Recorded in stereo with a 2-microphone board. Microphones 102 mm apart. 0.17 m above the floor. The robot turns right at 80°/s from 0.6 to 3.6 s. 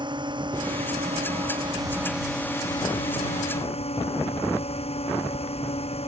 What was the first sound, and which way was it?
A drone, 135° right.